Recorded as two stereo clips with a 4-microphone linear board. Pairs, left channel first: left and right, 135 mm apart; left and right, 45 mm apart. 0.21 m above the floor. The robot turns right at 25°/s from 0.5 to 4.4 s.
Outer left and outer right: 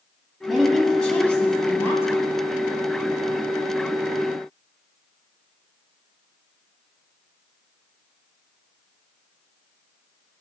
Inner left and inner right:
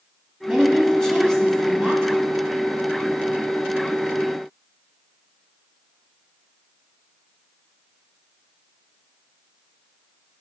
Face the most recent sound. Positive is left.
turn(degrees=95)